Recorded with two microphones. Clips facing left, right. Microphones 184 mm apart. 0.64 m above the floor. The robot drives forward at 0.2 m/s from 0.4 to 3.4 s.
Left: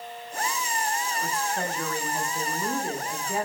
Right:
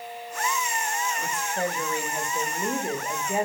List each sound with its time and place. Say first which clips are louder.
1.2 s a woman speaking: right 1 dB; 15° right (ahead or behind), 0.8 m; by 3.4 s 20° right (ahead or behind), 0.6 m